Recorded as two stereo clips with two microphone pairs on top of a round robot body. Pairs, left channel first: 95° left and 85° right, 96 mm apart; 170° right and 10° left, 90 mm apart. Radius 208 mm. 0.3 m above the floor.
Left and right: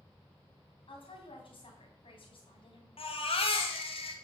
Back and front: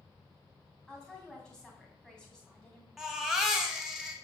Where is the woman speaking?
105° left, 2 m.